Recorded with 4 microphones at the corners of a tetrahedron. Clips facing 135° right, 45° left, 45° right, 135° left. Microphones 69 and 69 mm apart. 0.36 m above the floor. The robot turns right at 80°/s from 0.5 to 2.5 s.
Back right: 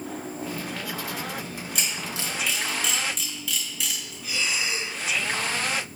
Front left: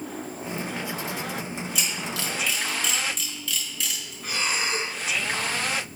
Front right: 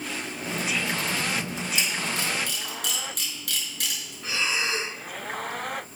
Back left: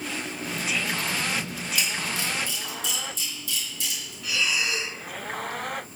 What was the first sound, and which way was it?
A camera shutter, 110° right.